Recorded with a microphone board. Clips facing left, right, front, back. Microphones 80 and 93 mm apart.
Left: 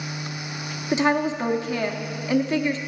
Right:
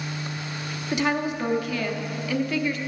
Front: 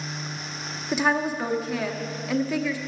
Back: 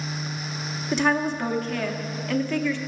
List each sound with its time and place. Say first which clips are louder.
0.9 s a woman speaking: left 4 dB, back 1 dB; 75° left, 0.9 m